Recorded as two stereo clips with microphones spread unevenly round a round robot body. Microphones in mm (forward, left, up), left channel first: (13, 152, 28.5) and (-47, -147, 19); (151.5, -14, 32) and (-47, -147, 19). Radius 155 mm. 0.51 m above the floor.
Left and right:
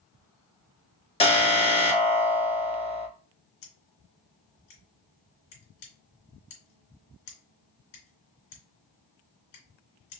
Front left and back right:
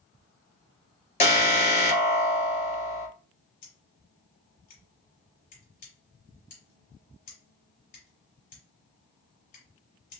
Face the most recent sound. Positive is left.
turn(degrees=100)